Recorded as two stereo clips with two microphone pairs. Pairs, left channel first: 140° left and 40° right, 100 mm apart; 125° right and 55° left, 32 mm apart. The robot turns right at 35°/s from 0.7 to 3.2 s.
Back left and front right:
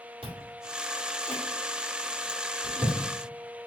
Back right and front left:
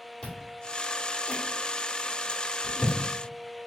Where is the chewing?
70° right, 1.7 m; by 3.0 s 10° left, 1.7 m.